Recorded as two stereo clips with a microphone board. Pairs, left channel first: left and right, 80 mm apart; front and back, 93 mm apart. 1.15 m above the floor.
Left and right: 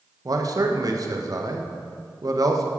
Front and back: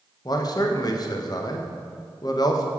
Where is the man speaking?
45° right, 0.7 m.